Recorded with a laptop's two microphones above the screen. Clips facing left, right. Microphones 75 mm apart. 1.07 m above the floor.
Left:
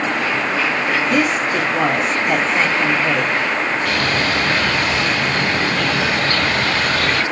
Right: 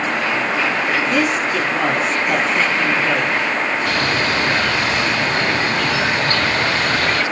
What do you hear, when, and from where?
1.1 s a woman speaking: 15° left (ahead or behind), 1.7 m
3.9 s a bird: 35° right (ahead or behind), 2 m